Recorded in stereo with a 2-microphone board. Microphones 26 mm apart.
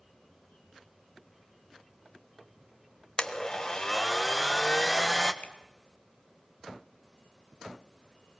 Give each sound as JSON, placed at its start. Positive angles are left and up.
{"t": 3.2, "sound": "a blender", "side_deg": 20, "distance_m": 1.4}
{"t": 5.4, "sound": "a finger snap", "side_deg": 55, "distance_m": 4.0}